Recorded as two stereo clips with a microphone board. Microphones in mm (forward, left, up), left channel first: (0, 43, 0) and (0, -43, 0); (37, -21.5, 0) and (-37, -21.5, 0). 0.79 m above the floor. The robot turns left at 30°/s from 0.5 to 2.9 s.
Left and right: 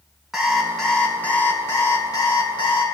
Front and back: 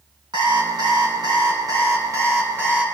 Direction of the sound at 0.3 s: 175° right.